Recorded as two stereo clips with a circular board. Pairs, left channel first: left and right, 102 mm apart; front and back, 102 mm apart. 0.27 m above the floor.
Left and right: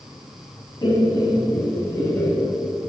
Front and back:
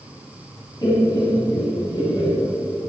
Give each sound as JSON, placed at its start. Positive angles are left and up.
{"t": 0.8, "sound": "laughter", "azimuth_deg": 50, "distance_m": 2.5}